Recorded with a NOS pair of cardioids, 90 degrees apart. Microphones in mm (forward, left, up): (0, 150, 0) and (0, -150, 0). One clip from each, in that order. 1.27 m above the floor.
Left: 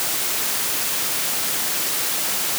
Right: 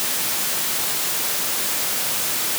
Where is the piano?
No piano in this recording.